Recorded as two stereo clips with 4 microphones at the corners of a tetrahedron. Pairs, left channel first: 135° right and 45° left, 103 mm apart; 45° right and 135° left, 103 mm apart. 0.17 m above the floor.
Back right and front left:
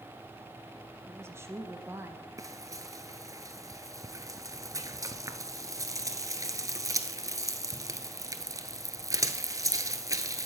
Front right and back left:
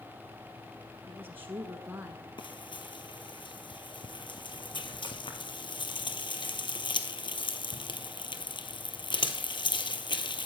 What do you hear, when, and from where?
1.1 s a woman speaking: 85° left, 1.2 m
2.4 s frying: 10° right, 1.0 m